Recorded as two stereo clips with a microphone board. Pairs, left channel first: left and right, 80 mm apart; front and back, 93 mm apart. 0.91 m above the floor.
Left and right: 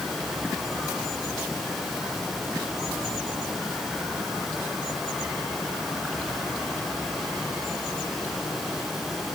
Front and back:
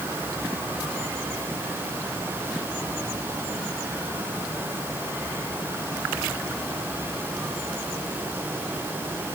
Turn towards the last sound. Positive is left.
No sound to turn to.